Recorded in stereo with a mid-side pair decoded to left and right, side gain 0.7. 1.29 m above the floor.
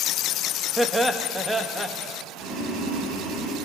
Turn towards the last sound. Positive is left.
turn(degrees=-55)